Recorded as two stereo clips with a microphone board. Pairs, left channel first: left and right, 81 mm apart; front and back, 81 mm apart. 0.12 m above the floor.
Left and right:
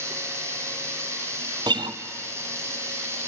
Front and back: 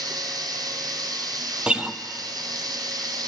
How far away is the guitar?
About 0.5 m.